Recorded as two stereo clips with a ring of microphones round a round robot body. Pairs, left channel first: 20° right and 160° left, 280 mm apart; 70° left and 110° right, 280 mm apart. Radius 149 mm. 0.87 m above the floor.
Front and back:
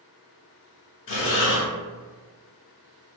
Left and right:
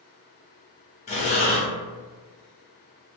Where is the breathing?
10° left, 0.6 m.